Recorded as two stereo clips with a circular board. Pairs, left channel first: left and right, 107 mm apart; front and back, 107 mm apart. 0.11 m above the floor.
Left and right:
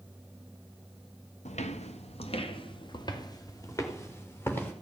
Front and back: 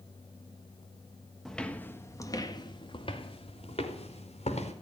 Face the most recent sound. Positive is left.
turn(degrees=20)